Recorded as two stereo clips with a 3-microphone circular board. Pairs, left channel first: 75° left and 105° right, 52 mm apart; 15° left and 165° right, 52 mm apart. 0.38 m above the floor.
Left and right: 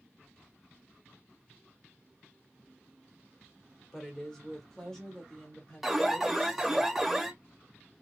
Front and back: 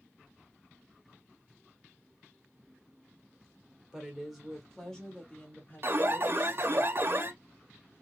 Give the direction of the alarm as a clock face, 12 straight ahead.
6 o'clock.